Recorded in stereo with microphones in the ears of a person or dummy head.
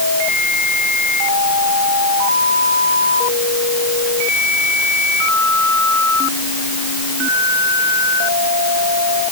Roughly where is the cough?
No cough in this recording.